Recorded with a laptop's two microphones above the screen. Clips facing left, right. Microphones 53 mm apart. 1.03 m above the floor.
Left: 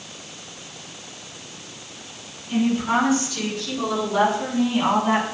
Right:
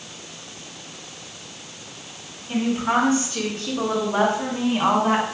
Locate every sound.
2.5 s a woman speaking: 35° right (ahead or behind), 9.5 m; by 5.2 s 40° right (ahead or behind), 8 m